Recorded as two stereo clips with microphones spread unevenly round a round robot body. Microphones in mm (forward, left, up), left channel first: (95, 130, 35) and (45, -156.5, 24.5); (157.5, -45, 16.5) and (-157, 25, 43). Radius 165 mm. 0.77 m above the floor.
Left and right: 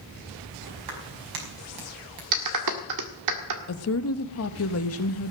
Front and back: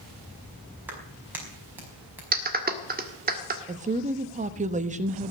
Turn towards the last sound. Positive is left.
turn(degrees=100)